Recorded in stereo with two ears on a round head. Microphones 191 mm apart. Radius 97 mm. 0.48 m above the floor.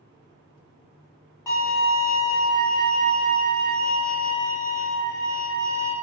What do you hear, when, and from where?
1.5 s a violin: 10° left (ahead or behind), 0.9 m